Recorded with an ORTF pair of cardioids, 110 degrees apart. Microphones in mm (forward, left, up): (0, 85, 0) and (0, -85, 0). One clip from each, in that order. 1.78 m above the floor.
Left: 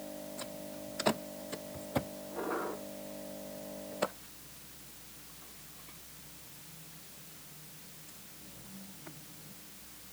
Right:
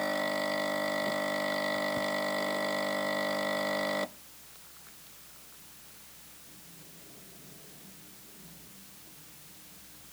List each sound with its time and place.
Only background noise.